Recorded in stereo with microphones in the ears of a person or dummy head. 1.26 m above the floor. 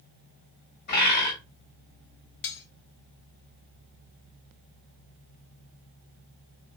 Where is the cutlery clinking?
55° left (ahead or behind), 0.9 m.